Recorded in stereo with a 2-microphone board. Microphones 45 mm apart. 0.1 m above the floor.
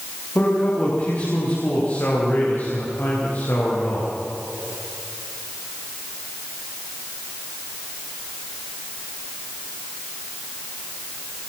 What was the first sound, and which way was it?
A man speaking, 40° left (ahead or behind).